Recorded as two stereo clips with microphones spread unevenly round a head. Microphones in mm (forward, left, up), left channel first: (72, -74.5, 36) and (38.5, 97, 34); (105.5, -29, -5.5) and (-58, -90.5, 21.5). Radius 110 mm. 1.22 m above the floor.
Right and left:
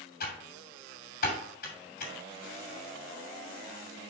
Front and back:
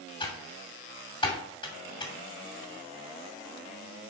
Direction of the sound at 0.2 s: 45° right.